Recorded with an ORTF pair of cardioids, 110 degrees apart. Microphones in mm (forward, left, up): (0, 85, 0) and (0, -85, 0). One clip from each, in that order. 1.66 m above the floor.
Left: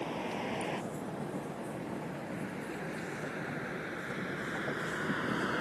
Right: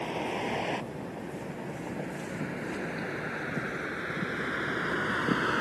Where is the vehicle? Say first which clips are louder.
Right 4 dB; 35° right.